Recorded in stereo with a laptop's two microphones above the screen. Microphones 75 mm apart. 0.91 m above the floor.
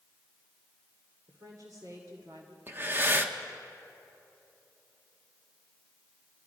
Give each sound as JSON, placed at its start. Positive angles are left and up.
{"t": 1.3, "sound": "a woman speaking", "side_deg": -55, "distance_m": 2.5}
{"t": 2.7, "sound": "breathing", "side_deg": -30, "distance_m": 1.3}